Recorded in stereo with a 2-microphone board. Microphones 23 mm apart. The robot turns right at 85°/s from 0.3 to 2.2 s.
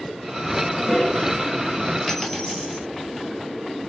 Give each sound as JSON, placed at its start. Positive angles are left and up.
{"t": 0.6, "sound": "a toilet flushing", "azimuth_deg": -5, "distance_m": 1.9}
{"t": 2.1, "sound": "a dropped coin", "side_deg": 10, "distance_m": 1.3}